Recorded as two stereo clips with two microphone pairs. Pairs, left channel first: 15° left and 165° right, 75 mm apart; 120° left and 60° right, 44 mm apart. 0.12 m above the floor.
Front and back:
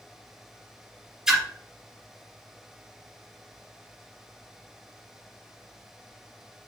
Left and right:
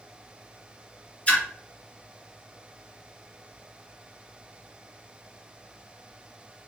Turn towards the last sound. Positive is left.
turn(degrees=125)